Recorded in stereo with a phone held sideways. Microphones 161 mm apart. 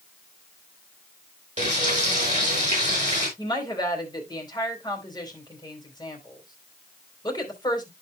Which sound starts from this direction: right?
Frying, at 1.6 s.